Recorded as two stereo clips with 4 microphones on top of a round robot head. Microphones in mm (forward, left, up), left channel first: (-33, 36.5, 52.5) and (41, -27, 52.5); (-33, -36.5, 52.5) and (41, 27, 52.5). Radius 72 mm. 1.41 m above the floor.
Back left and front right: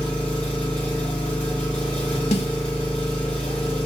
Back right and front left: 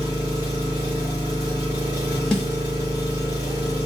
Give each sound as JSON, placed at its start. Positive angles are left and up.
{"t": 0.0, "sound": "an engine running", "azimuth_deg": 80, "distance_m": 0.9}
{"t": 2.3, "sound": "a snare drum", "azimuth_deg": 135, "distance_m": 0.7}